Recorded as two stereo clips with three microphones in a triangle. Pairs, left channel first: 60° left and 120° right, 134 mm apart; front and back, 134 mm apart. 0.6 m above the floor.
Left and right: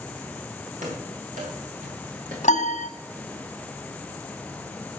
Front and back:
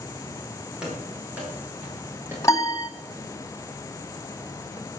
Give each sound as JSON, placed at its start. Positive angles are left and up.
{"t": 0.8, "sound": "running footsteps", "azimuth_deg": -95, "distance_m": 9.0}
{"t": 2.4, "sound": "a piano", "azimuth_deg": 60, "distance_m": 1.9}